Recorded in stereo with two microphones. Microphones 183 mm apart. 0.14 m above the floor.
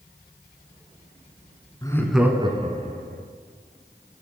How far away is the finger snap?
No finger snap in this recording.